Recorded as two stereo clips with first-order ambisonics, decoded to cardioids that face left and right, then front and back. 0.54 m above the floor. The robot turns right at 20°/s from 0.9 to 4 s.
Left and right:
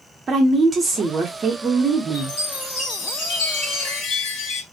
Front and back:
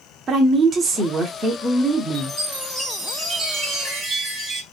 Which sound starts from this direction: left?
A chime, at 2.1 s.